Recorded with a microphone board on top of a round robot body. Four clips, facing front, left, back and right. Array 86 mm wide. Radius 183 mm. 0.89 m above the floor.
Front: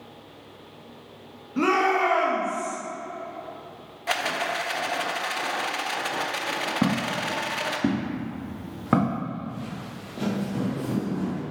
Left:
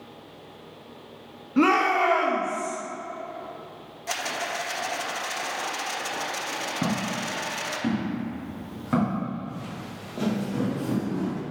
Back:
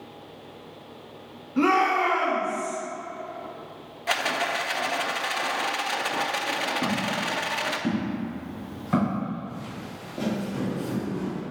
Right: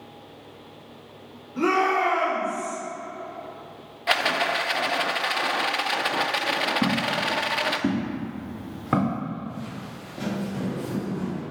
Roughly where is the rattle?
Right.